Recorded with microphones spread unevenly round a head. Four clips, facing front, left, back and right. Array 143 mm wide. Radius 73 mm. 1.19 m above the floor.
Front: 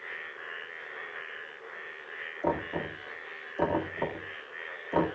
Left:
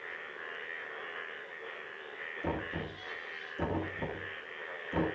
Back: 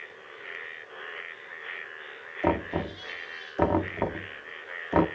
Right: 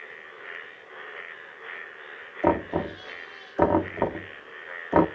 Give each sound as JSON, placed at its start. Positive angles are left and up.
{"t": 2.4, "sound": "knocking", "azimuth_deg": -110, "distance_m": 1.4}